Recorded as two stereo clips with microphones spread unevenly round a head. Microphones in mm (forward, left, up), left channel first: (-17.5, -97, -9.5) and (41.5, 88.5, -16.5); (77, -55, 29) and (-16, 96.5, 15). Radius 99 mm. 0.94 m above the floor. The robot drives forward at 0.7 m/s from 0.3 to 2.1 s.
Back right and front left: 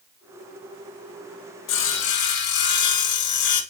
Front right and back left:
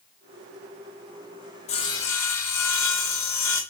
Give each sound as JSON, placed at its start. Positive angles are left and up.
{"t": 1.7, "sound": "sawing", "azimuth_deg": -115, "distance_m": 0.7}